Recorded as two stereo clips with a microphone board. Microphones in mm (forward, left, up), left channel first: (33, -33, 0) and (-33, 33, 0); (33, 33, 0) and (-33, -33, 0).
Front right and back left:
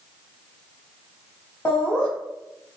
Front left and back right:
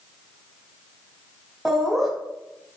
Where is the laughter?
45° right, 1.3 m.